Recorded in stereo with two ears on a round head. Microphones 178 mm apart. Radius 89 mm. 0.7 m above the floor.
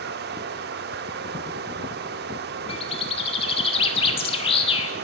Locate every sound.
0.0 s running water: 55° right (ahead or behind), 1.1 m
2.7 s a bird: 30° left (ahead or behind), 1.9 m